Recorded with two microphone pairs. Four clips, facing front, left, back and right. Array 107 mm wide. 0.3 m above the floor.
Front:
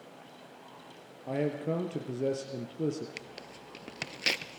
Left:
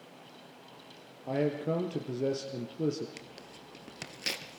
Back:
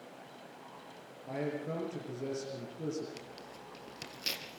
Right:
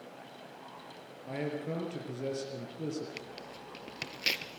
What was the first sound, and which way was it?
A man speaking, 45° left.